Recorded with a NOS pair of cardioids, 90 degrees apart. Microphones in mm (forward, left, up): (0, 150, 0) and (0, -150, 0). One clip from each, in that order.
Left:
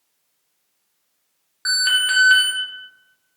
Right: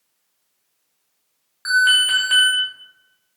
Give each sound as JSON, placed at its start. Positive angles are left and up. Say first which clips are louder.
{"t": 1.6, "sound": "an alarm", "louder": "right 3 dB", "azimuth_deg": 5, "distance_m": 0.9}